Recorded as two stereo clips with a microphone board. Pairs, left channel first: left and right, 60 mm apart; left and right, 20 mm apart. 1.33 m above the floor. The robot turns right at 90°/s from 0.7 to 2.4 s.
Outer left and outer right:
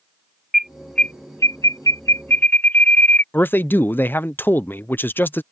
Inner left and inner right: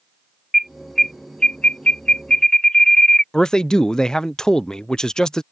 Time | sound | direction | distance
0.5 | an alarm | 5° right (ahead or behind) | ?
3.3 | a man speaking | 35° left (ahead or behind) | ?